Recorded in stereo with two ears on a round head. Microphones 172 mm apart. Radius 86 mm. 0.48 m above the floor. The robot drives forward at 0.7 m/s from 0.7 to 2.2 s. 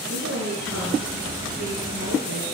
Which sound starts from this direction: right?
A woman speaking, at 0.1 s.